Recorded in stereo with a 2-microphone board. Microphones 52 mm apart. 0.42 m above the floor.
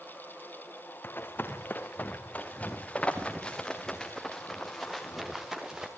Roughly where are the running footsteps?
Left.